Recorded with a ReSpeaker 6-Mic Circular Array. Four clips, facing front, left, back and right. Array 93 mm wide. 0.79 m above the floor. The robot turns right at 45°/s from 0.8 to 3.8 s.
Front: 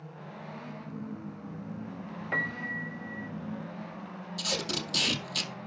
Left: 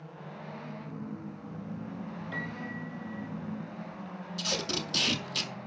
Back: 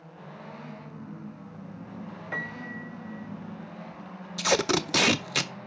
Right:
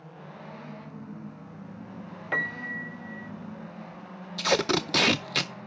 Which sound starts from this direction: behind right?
Tape being pulled, at 4.4 s.